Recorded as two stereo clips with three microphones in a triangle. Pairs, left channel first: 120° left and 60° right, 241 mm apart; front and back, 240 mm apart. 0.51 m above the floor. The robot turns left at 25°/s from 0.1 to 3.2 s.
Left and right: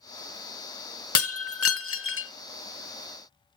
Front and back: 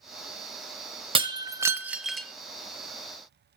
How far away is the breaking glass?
About 0.8 m.